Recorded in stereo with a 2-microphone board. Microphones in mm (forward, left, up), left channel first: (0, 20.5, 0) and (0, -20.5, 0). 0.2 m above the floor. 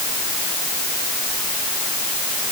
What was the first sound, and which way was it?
Only background noise.